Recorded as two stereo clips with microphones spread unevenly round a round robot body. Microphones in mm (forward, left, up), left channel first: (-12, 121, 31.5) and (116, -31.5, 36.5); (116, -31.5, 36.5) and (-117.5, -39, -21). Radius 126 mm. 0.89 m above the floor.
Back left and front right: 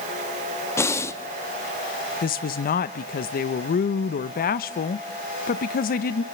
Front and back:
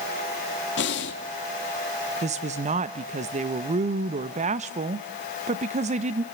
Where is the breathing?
55° left, 1.4 m.